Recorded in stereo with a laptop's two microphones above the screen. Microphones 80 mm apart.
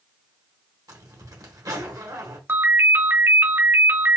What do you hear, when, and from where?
0.9 s a zipper: 55° right (ahead or behind), 1.5 m
2.5 s a ringtone: 30° right (ahead or behind), 1.0 m